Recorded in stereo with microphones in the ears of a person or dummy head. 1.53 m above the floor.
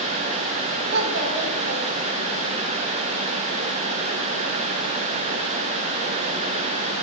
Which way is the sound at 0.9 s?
70° right (ahead or behind).